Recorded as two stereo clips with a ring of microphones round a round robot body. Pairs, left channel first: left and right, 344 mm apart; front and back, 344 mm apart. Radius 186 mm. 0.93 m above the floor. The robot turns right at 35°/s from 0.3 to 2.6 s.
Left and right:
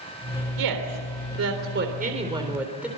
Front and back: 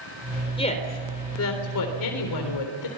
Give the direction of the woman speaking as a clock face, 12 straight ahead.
2 o'clock.